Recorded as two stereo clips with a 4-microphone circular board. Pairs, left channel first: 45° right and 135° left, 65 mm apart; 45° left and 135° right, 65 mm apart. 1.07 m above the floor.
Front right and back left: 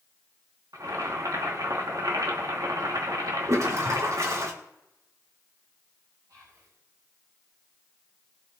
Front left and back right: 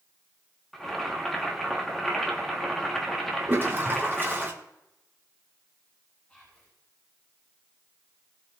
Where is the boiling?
130° left, 2.5 m.